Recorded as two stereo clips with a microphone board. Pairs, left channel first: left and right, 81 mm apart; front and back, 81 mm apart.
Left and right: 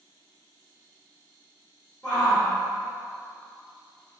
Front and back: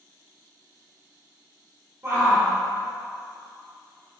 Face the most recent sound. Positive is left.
turn(degrees=170)